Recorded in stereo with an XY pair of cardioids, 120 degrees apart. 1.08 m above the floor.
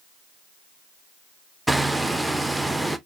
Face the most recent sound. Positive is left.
turn(degrees=-5)